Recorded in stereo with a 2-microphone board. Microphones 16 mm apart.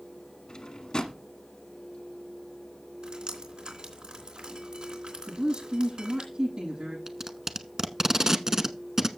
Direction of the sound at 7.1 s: 30° right (ahead or behind).